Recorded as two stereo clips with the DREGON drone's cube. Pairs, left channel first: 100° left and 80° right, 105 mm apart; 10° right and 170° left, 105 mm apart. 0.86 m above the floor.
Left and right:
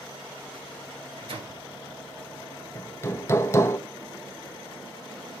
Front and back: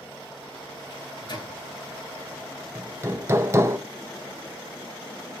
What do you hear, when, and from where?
0.9 s a microwave: 50° right, 2 m
2.8 s hammering: 135° left, 0.5 m